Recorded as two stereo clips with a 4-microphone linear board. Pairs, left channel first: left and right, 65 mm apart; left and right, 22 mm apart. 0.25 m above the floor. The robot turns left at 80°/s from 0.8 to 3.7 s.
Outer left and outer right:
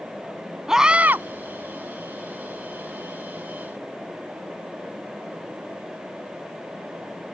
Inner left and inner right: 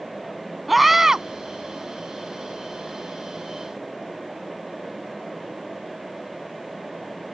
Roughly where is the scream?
Ahead.